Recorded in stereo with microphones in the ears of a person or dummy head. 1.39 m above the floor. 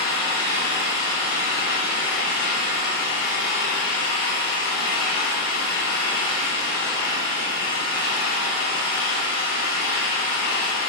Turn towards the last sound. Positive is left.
turn(degrees=60)  # may be behind; listen again after turning